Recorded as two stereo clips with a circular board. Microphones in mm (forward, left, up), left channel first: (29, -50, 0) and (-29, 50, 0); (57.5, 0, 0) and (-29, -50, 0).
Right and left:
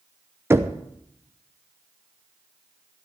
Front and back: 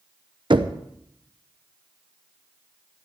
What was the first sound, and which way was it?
Knocking, 175° right.